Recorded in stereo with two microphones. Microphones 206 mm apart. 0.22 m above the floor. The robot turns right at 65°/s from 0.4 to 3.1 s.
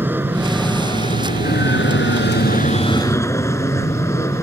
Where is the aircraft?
10° right; by 4.4 s 165° left.